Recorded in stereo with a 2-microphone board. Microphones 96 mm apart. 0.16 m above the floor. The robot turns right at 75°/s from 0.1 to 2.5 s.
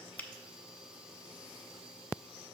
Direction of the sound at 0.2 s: 20° left (ahead or behind).